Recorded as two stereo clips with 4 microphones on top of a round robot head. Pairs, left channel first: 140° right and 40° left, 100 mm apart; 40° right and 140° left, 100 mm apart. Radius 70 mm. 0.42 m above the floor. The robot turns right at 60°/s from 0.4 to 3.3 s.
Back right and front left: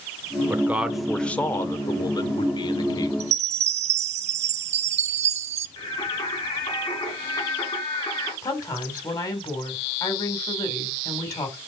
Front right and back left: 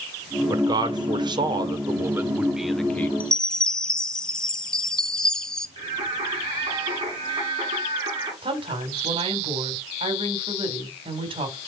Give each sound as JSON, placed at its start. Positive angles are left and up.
{"t": 0.5, "sound": "a man speaking", "azimuth_deg": 100, "distance_m": 1.6}
{"t": 3.2, "sound": "a chime", "azimuth_deg": 35, "distance_m": 0.7}
{"t": 5.8, "sound": "singing", "azimuth_deg": 180, "distance_m": 5.0}
{"t": 8.4, "sound": "a woman speaking", "azimuth_deg": 170, "distance_m": 4.0}